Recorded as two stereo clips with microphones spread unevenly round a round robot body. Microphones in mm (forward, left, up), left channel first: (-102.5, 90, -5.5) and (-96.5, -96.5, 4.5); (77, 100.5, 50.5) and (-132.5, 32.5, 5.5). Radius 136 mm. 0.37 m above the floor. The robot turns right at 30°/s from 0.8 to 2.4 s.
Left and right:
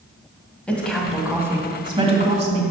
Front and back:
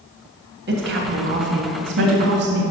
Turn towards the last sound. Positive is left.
turn(degrees=-135)